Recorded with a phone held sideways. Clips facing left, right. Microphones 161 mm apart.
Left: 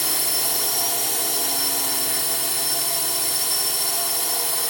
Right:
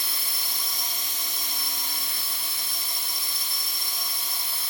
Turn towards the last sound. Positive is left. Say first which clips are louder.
# left 11 dB
turn(degrees=70)  # may be behind; listen again after turning